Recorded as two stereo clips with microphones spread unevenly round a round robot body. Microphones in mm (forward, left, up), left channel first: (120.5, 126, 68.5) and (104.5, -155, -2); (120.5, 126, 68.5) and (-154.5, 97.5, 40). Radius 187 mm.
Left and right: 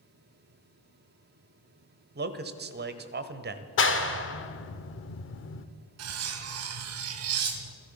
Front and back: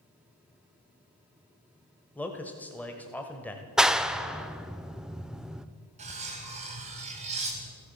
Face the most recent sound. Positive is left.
turn(degrees=-110)